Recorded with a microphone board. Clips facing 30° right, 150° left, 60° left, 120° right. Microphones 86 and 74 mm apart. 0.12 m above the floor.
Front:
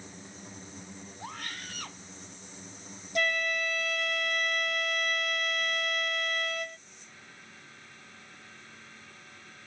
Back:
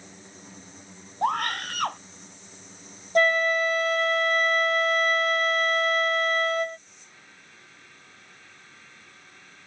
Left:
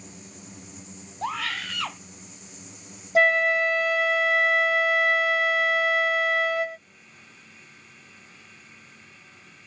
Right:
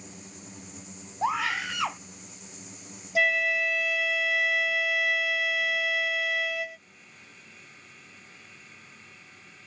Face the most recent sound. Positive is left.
turn(degrees=105)